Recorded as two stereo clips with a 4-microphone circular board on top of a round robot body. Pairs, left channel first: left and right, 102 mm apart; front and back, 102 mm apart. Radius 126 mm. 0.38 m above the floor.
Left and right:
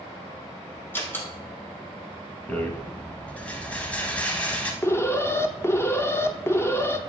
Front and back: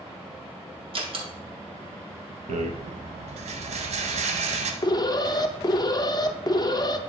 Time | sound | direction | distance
0.9 | a door slam | 160° left | 2 m
2.5 | a rattle | 170° left | 0.6 m
4.8 | an alarm | 35° left | 0.8 m